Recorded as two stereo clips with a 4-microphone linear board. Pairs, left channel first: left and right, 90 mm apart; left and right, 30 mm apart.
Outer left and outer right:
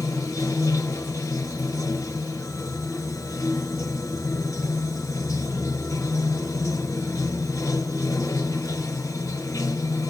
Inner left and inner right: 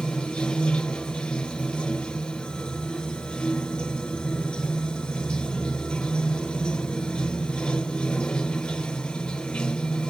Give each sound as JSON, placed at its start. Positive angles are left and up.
{"t": 0.0, "sound": "running water", "side_deg": 35, "distance_m": 1.1}